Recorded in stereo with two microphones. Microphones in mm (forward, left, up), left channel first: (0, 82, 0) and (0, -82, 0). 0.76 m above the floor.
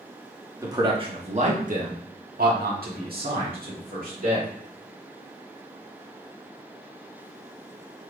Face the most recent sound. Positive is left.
turn(degrees=-60)  # may be behind; listen again after turning